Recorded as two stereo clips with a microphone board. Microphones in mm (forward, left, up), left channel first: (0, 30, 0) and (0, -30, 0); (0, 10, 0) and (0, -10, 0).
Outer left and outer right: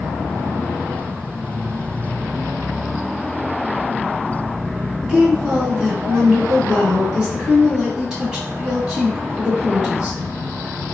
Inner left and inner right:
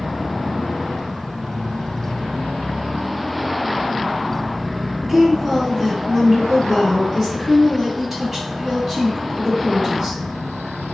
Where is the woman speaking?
10° right (ahead or behind), 1.8 m.